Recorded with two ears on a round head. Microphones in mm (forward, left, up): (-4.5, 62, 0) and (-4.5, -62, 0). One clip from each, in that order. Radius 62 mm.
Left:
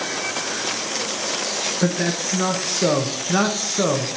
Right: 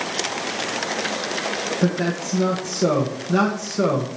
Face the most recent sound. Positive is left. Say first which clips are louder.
# left 1 dB
turn(degrees=55)  # may be behind; listen again after turning